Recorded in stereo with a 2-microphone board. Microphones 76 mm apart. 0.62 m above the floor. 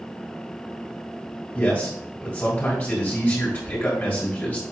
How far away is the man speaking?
About 3 m.